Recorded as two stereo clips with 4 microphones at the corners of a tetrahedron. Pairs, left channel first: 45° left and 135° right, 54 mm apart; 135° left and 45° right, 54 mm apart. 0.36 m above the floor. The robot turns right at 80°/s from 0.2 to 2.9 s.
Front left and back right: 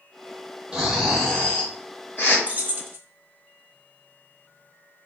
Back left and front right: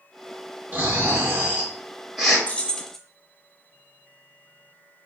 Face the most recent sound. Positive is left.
turn(degrees=-145)